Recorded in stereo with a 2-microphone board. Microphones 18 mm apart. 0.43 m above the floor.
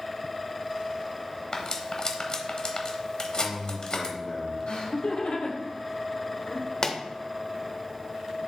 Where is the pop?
30° left (ahead or behind), 1.0 m.